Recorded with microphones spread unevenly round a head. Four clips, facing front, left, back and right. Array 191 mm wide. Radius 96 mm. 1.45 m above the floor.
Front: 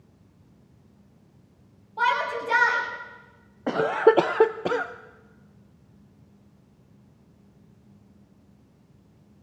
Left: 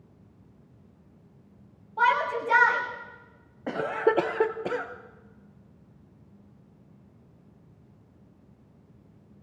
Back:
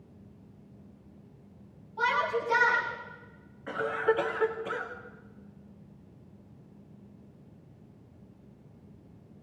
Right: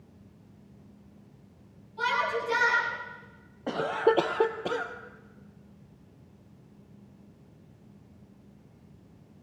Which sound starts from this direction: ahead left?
A shout, at 2.0 s.